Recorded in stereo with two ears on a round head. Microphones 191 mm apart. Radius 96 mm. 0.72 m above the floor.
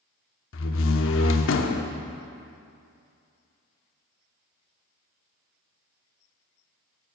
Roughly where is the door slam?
Left.